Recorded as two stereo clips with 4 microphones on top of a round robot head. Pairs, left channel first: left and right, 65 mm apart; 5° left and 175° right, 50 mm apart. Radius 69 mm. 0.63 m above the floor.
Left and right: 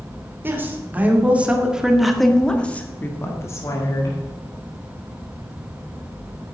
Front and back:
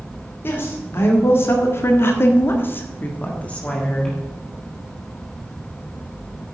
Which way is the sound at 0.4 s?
35° right.